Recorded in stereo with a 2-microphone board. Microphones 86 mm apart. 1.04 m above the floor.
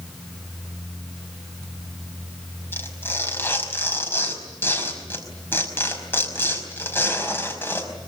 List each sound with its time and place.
2.7 s tearing paper: 25° left (ahead or behind), 5 m